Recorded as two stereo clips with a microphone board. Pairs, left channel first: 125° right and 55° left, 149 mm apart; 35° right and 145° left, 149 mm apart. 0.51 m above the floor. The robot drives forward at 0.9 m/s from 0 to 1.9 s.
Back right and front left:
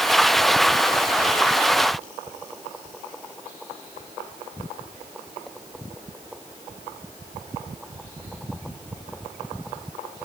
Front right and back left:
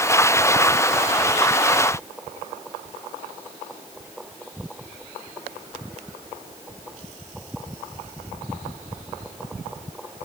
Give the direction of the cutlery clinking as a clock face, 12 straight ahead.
I don't hear cutlery clinking.